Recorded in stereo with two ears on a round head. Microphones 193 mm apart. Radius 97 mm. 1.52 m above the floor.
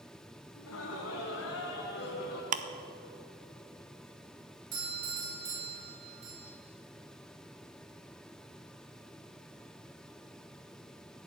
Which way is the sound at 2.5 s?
35° right (ahead or behind).